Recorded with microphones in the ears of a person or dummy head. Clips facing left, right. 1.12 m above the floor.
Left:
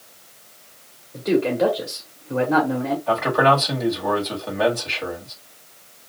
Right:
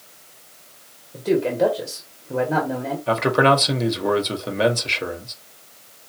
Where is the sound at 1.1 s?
15° right (ahead or behind), 1.1 m.